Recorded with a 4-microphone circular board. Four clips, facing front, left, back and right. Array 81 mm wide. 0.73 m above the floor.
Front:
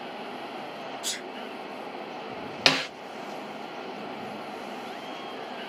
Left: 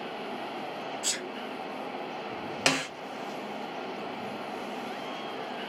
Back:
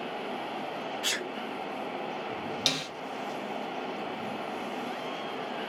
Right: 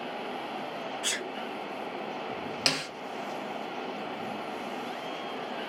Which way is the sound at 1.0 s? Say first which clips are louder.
Right 2 dB, back 4 dB; 145° right.